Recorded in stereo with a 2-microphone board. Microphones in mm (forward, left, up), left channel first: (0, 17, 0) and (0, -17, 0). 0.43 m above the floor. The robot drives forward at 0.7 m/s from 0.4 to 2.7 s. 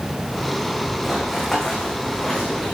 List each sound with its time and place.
1.0 s running footsteps: 5° left (ahead or behind), 2 m; by 2.7 s 15° left (ahead or behind), 2.5 m